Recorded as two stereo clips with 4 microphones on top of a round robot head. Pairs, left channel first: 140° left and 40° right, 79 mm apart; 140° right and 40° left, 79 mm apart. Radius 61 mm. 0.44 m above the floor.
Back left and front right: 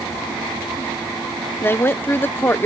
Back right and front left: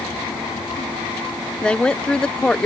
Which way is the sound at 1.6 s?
155° left.